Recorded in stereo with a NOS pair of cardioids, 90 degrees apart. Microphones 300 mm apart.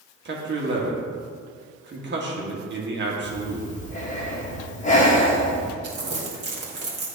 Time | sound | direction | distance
0.2 | a man speaking | 35° right | 1.5 m
3.2 | breathing | 25° left | 1.3 m
5.8 | crumpling | 40° right | 2 m